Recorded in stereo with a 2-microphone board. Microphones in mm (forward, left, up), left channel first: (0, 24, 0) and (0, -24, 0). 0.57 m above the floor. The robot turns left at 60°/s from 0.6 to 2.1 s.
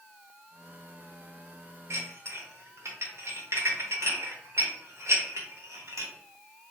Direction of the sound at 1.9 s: 70° right (ahead or behind).